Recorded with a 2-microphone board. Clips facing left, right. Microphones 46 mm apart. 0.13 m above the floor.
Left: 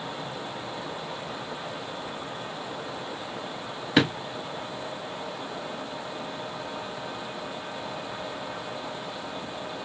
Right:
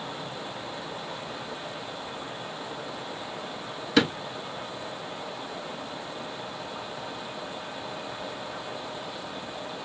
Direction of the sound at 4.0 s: 25° left (ahead or behind).